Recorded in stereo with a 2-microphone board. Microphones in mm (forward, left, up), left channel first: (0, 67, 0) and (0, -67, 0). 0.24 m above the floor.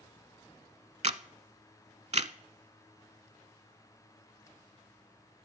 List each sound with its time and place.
1.0 s a camera shutter: 55° right (ahead or behind), 0.6 m